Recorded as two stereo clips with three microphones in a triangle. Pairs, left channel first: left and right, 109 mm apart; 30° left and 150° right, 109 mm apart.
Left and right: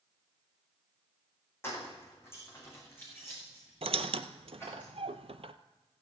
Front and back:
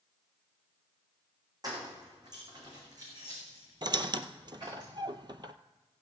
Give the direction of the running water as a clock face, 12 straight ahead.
I don't hear running water.